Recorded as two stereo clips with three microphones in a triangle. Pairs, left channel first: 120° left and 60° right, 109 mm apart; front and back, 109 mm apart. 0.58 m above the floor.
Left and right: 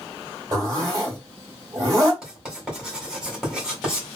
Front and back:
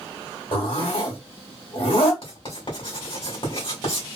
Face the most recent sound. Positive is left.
turn(degrees=25)